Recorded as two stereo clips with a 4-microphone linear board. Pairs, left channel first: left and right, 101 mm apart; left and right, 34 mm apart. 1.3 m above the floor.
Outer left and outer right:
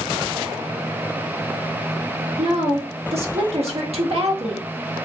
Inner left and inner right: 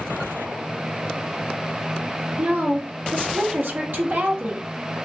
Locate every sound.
2.4 s a woman speaking: 85° right, 1.5 m